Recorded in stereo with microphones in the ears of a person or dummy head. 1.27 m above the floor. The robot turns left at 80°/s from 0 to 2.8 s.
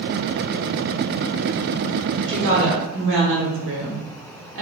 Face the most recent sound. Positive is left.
turn(degrees=-70)